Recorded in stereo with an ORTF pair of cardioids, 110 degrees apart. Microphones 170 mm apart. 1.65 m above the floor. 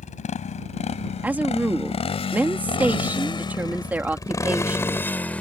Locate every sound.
0.0 s a motorcycle: 45° left; by 5.4 s 10° left
1.2 s a woman speaking: 10° right